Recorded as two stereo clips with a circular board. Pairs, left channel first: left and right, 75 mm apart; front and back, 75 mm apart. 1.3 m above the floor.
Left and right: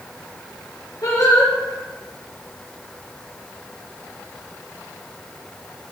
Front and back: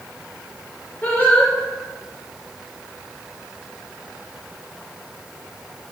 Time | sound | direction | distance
1.0 | singing | 65° left | 4 m